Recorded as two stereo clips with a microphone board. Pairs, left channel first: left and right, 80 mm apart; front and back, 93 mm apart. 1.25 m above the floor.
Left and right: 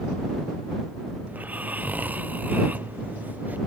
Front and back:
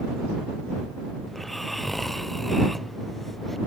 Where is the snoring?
85° right.